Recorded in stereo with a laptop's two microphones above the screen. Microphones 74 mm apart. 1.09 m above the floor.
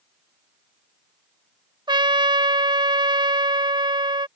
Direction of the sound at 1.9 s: 85° right.